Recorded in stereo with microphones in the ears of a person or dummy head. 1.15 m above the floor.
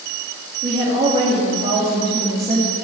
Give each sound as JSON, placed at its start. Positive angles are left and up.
{"t": 0.6, "sound": "a woman speaking", "side_deg": -35, "distance_m": 2.5}